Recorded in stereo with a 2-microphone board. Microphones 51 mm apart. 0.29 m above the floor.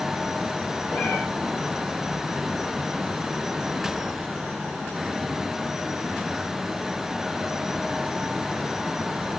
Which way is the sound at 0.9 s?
50° left (ahead or behind).